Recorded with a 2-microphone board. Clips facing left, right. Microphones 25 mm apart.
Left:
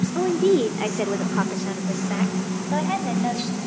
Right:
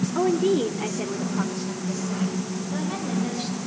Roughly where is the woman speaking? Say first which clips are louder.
Left 2 dB; centre.